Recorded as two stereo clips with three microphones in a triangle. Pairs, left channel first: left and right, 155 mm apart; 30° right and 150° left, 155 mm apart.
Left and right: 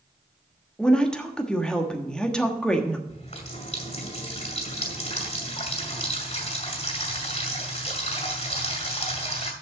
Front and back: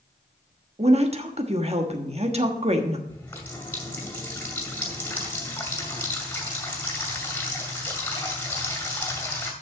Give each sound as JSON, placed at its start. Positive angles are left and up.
{"t": 0.8, "sound": "a woman speaking", "azimuth_deg": 170, "distance_m": 1.2}
{"t": 3.1, "sound": "a running tap", "azimuth_deg": 45, "distance_m": 2.0}